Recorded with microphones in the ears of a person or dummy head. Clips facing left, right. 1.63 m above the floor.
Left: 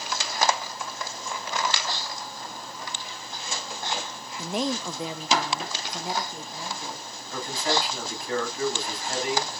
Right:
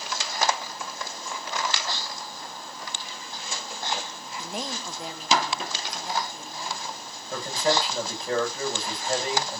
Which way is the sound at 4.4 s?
55° left (ahead or behind).